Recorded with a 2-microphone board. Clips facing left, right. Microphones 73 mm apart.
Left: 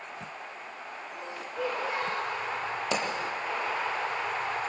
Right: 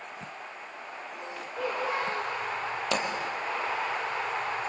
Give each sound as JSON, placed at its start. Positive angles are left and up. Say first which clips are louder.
{"t": 1.6, "sound": "a child speaking", "louder": "right 1 dB", "side_deg": 0, "distance_m": 4.0}
{"t": 2.9, "sound": "a pop", "louder": "right 1 dB", "side_deg": 15, "distance_m": 5.0}